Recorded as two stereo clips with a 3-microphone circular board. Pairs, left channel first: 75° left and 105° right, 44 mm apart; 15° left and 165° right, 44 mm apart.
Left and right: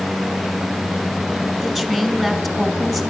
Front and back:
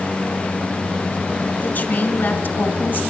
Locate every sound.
1.6 s a woman speaking: 10° right, 2.5 m